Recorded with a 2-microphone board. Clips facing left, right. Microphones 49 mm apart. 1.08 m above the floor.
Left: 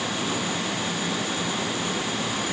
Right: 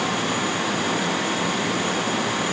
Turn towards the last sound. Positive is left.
No sound to turn to.